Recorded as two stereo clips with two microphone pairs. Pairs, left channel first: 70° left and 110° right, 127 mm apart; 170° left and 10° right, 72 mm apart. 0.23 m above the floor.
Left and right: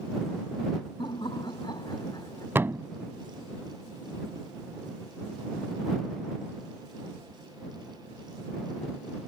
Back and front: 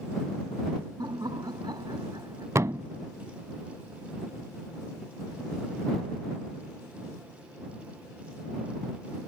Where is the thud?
45° right.